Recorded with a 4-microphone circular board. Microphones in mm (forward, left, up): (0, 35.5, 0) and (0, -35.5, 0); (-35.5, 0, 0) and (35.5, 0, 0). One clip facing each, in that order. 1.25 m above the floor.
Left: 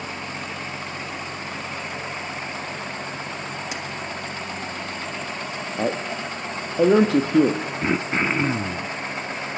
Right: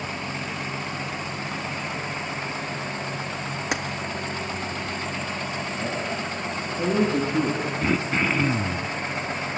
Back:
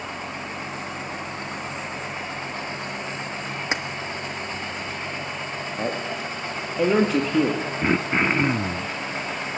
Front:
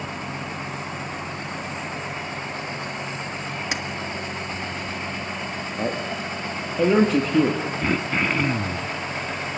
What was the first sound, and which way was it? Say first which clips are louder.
Keys jangling: right 5 dB, back 4 dB; 115° right.